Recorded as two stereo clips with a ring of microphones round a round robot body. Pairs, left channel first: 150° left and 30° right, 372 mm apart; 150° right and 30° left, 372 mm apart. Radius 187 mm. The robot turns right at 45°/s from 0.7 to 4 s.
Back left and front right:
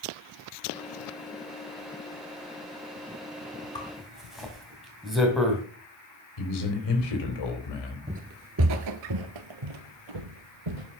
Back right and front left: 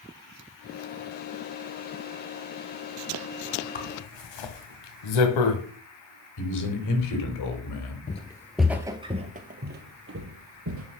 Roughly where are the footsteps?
Right.